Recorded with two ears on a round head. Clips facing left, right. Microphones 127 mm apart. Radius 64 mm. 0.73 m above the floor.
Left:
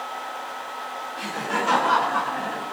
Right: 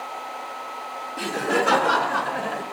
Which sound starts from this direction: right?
Laughter, at 1.2 s.